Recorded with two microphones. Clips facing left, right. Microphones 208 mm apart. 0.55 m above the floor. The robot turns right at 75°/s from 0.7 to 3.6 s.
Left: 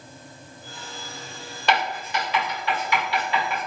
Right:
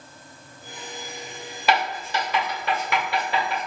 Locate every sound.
1.7 s writing: 5° right (ahead or behind), 1.9 m; by 3.7 s 30° right (ahead or behind), 1.9 m